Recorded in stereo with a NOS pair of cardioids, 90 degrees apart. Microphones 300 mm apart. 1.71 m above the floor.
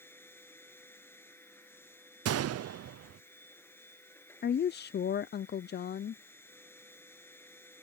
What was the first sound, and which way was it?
A machine running, 10° left.